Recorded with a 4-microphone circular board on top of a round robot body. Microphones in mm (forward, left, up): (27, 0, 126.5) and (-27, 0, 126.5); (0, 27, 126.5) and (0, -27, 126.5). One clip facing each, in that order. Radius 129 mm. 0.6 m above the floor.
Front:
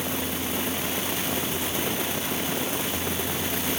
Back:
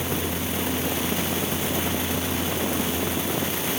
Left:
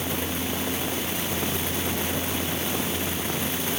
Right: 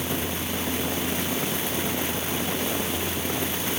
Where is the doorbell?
I don't hear a doorbell.